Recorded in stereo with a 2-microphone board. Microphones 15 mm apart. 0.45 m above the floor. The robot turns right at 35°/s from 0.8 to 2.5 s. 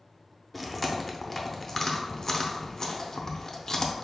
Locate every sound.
0.5 s chewing: 5° left (ahead or behind), 0.5 m; by 4.0 s 35° left (ahead or behind), 0.5 m